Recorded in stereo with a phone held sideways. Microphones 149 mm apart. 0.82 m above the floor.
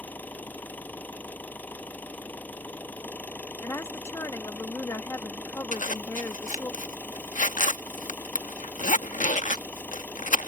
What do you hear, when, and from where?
0.0 s an engine running: 10° left (ahead or behind)
3.6 s a woman speaking: 20° left (ahead or behind)
5.7 s a zipper: 55° left (ahead or behind)